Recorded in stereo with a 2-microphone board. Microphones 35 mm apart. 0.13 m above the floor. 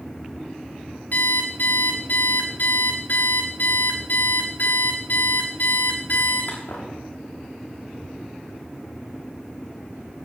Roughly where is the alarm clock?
Left.